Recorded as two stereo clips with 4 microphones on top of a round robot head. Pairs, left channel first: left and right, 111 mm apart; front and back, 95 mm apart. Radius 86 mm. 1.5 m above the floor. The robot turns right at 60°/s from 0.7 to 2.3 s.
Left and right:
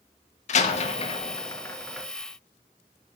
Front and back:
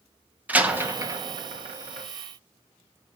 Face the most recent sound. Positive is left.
turn(degrees=-160)